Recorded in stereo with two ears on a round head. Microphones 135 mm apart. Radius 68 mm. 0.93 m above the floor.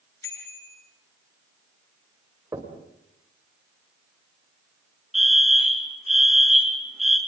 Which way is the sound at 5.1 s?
Centre (ahead or behind).